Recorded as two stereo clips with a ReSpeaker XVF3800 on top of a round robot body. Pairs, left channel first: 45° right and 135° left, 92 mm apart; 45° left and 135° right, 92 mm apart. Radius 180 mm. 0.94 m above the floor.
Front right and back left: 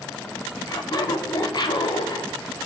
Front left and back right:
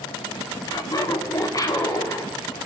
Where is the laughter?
5° left, 3.5 m; by 2.3 s 10° right, 3.5 m.